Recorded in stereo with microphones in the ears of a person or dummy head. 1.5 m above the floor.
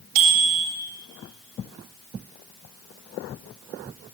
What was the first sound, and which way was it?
A bicycle bell, 50° right (ahead or behind).